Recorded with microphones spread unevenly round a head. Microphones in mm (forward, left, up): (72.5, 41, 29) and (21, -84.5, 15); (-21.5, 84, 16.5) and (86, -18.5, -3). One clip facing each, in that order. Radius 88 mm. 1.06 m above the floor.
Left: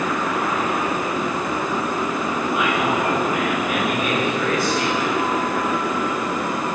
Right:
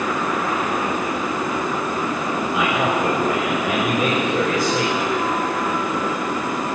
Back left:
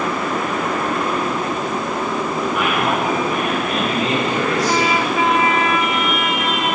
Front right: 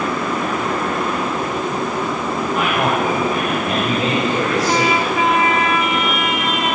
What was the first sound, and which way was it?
A man speaking, 110° right.